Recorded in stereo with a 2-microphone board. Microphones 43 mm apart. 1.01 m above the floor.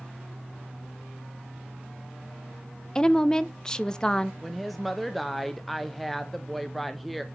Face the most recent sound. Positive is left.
turn(degrees=5)  # may be behind; listen again after turning